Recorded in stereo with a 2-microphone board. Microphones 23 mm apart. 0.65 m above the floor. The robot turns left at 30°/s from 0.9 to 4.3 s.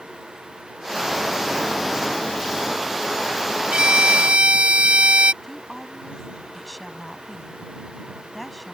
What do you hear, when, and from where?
3.7 s a violin: 55° right (ahead or behind); by 5.3 s 70° right (ahead or behind)
5.4 s a woman speaking: 5° left (ahead or behind)